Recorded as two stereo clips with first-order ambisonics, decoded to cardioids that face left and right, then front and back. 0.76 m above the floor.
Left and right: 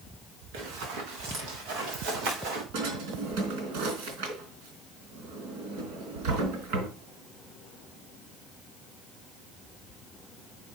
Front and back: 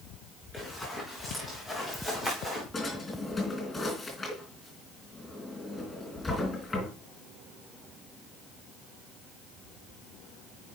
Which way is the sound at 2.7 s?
85° right.